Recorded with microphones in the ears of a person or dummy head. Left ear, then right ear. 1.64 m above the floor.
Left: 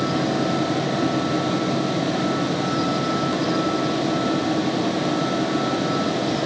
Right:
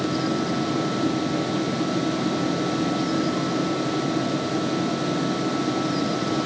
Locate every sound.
Only background noise.